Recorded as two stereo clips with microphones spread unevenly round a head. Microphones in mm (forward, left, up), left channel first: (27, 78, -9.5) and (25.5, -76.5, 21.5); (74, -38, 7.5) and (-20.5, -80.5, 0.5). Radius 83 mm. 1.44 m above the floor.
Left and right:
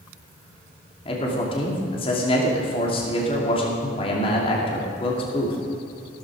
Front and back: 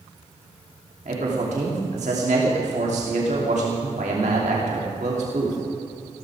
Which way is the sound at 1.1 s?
150° left.